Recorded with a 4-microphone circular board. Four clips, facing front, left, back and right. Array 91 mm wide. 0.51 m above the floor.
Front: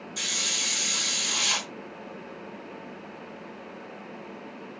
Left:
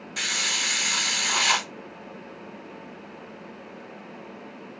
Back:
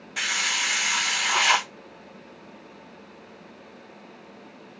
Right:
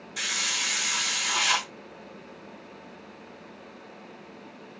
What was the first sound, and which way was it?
A hiss, 165° left.